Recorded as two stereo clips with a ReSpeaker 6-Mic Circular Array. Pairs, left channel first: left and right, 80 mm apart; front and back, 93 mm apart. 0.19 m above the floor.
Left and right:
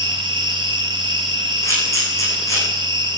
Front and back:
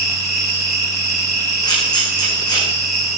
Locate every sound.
0.0 s an insect: 90° right, 3.5 m
1.6 s a camera shutter: 40° left, 8.5 m